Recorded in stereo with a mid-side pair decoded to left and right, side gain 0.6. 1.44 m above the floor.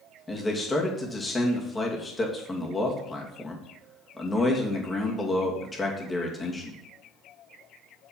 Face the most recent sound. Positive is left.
turn(degrees=20)